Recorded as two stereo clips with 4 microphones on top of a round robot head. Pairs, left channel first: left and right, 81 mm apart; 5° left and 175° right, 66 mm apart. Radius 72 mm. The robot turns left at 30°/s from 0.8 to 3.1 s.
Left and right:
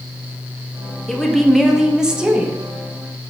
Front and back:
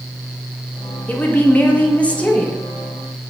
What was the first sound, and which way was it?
A woman speaking, 5° left.